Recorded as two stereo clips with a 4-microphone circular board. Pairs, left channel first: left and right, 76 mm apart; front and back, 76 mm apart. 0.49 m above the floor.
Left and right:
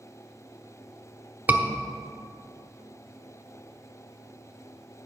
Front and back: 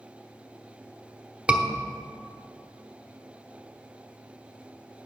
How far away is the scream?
About 0.8 m.